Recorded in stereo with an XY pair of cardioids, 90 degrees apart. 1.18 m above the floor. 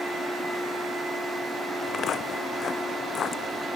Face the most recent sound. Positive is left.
turn(degrees=65)